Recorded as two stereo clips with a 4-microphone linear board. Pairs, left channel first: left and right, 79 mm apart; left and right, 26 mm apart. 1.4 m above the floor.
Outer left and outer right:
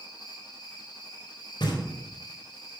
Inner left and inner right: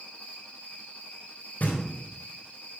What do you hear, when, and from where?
0.0 s an insect: 60° left (ahead or behind), 3.5 m
1.6 s knocking: 70° left (ahead or behind), 4 m